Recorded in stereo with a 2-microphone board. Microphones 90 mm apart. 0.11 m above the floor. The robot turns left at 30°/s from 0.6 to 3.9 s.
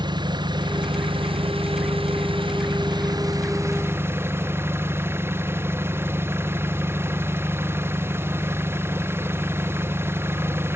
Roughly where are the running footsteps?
No running footsteps in this recording.